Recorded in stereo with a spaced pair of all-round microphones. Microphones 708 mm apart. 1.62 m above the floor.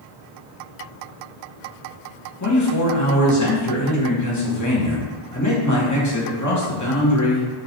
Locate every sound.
2.4 s a man speaking: 25° left (ahead or behind), 1.2 m